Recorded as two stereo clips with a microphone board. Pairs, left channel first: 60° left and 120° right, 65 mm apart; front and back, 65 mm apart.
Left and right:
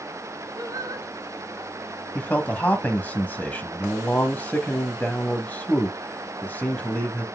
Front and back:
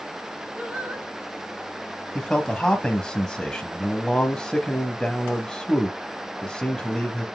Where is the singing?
115° right, 1.6 m.